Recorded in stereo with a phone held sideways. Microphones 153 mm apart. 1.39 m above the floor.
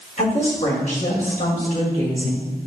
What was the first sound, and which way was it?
A woman speaking, 50° left (ahead or behind).